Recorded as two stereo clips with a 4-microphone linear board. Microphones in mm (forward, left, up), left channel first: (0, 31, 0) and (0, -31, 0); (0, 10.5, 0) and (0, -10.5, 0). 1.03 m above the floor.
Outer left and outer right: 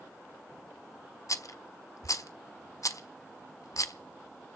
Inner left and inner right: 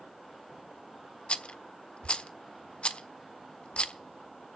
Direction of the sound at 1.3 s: 65° left (ahead or behind).